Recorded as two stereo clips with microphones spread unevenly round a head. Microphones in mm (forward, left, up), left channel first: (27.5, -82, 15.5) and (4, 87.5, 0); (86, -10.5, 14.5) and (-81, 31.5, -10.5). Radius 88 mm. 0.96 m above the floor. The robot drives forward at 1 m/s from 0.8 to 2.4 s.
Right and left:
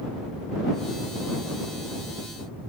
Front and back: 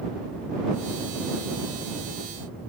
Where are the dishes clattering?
I don't hear dishes clattering.